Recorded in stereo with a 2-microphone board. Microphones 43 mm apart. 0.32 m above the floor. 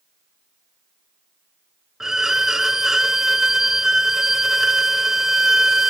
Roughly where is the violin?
Centre.